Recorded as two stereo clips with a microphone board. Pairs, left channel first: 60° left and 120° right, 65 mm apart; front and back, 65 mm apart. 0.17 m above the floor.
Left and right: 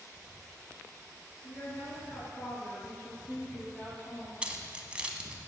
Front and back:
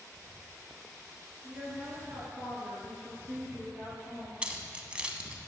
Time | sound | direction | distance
1.4 | a woman speaking | 110° left | 2 m
4.4 | keys jangling | 150° right | 0.7 m